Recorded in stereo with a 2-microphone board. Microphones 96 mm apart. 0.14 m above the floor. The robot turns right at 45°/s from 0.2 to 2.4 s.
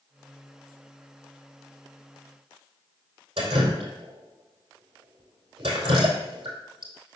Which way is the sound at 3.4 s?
70° right (ahead or behind).